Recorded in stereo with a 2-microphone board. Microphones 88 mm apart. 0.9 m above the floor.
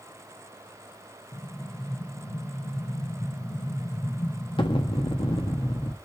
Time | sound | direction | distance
1.3 | an explosion | 70° left (ahead or behind) | 1.4 m